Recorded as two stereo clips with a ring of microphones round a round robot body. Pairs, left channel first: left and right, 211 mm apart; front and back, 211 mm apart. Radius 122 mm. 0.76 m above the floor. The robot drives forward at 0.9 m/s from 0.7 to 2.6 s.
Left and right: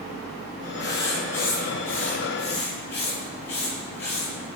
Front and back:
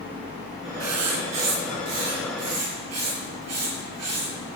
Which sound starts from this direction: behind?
Writing, at 0.8 s.